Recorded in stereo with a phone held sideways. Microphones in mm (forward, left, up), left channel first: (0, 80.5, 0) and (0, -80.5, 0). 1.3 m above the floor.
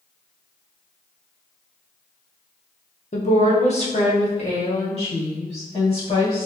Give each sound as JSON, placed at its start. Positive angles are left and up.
{"t": 3.1, "sound": "a woman speaking", "side_deg": 50, "distance_m": 0.9}